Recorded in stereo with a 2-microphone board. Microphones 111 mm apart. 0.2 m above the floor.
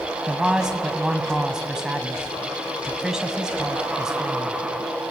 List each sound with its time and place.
0.3 s a man speaking: 5° right (ahead or behind), 1.7 m